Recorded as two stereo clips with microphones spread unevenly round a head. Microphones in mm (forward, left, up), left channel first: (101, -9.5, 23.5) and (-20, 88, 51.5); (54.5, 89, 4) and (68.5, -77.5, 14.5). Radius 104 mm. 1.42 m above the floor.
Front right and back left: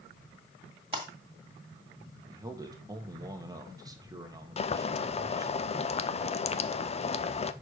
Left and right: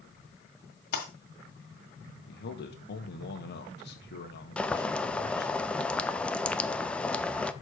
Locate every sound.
0.9 s breaking glass: 105° left, 1.7 m
2.3 s a man speaking: 75° left, 1.1 m
4.6 s boiling: 10° left, 0.6 m